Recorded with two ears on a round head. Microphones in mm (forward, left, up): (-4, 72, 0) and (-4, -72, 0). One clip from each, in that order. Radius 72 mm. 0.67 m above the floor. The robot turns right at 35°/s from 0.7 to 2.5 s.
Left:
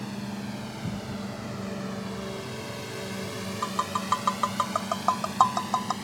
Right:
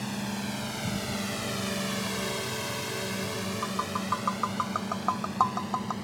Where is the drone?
30° right (ahead or behind); by 6.0 s 30° left (ahead or behind).